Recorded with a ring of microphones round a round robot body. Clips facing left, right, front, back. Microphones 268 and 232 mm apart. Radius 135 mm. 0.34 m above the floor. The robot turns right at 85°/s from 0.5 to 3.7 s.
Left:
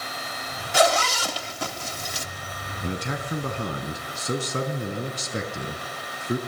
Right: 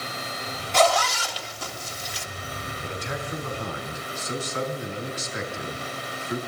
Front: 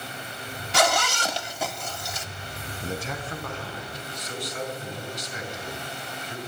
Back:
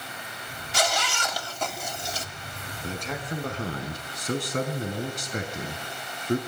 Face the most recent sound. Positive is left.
turn(degrees=140)